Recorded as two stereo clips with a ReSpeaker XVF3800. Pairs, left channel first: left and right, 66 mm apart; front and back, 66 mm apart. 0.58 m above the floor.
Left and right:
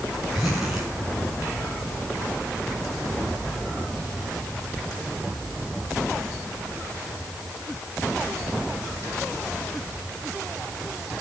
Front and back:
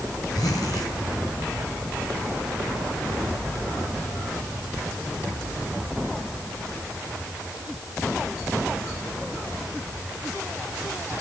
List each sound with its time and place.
0.3 s a zipper: 5° right, 6 m